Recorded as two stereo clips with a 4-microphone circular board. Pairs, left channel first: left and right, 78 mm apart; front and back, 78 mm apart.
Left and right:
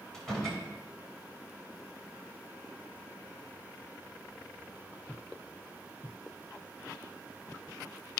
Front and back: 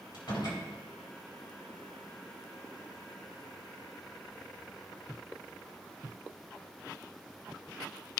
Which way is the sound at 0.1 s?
5° left.